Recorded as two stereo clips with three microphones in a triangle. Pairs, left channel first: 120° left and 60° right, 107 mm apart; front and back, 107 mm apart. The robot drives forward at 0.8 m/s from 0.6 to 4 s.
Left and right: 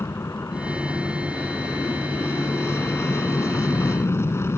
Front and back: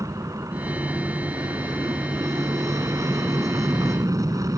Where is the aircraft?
160° left.